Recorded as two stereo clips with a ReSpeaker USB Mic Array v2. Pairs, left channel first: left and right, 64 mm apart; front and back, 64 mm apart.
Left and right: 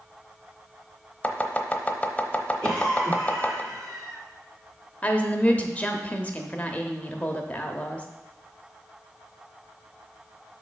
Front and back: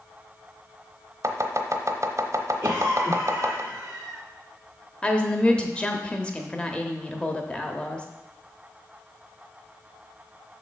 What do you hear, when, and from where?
1.2 s chopping: 155° left, 0.8 m
2.6 s a cough: 120° right, 3 m
5.0 s a woman speaking: 50° left, 0.9 m